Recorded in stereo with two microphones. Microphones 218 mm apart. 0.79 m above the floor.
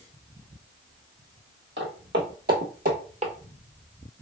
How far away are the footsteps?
About 1.4 m.